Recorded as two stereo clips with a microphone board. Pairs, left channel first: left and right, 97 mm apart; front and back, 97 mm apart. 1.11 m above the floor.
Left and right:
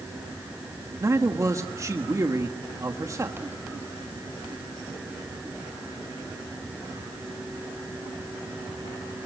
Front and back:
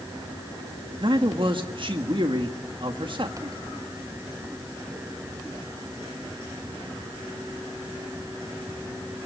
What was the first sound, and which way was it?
A man speaking, 145° right.